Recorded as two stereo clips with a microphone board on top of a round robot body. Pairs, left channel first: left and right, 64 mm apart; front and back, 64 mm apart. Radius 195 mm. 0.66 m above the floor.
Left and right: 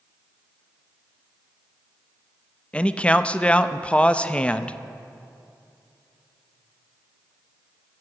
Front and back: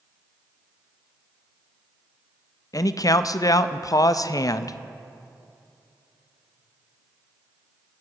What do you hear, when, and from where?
2.7 s a man speaking: 20° left, 0.7 m